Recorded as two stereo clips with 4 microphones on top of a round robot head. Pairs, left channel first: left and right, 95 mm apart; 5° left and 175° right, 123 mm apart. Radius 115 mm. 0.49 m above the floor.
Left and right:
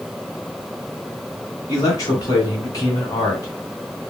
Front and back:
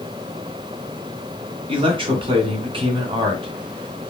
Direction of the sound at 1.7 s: 140° left.